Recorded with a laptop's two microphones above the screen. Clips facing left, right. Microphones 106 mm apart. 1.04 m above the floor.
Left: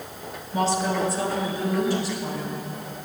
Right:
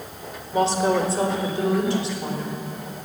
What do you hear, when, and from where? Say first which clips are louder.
0.5 s a woman speaking: right 4 dB; 80° right, 2.5 m